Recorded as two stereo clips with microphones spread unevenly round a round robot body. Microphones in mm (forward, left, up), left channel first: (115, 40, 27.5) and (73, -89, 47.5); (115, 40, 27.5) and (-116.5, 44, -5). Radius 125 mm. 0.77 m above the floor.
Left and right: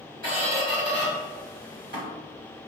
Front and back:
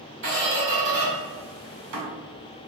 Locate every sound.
0.2 s a squeak: 150° right, 1.5 m